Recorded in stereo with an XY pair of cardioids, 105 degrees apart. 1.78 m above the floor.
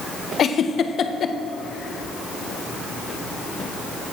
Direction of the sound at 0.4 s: 50° left.